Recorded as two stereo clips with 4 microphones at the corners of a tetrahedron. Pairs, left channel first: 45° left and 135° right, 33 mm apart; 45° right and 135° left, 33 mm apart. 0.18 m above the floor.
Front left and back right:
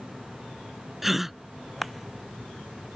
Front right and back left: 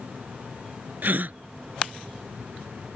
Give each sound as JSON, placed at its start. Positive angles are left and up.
{"t": 1.0, "sound": "a gasp", "azimuth_deg": 145}